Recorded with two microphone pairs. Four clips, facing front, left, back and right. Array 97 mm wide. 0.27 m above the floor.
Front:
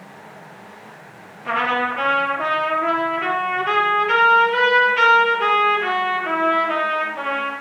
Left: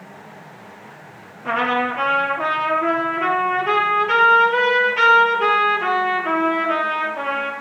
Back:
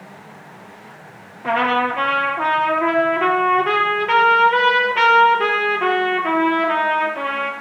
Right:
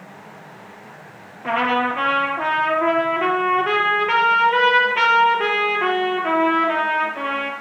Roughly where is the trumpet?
Behind right.